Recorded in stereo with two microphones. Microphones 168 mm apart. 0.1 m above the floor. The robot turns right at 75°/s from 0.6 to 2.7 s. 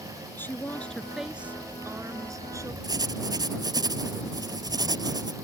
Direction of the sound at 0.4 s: 15° left (ahead or behind).